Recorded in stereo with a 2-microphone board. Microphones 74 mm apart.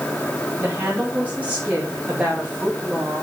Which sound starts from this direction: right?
A woman speaking, at 0.6 s.